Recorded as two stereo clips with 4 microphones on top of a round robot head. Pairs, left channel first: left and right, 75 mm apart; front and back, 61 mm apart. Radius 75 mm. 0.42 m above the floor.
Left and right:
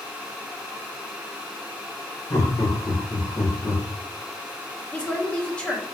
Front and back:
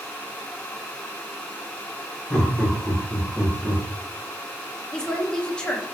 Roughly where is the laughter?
Ahead left.